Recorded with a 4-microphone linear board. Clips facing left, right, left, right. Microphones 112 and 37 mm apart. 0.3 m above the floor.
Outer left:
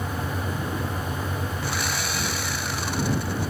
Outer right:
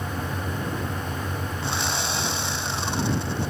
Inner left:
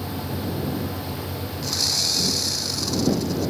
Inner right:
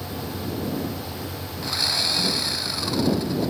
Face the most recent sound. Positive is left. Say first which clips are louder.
# outer right 1 dB, inner right 2 dB
turn(degrees=-25)  # may be behind; listen again after turning